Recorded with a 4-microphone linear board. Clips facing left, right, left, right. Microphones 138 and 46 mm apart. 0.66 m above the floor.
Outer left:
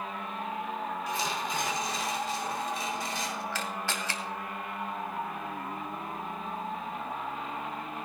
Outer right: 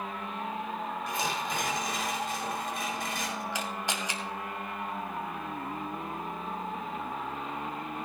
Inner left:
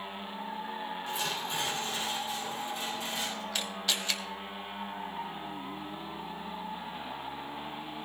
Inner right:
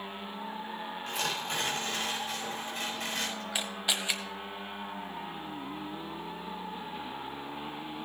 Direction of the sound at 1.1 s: 55° right (ahead or behind).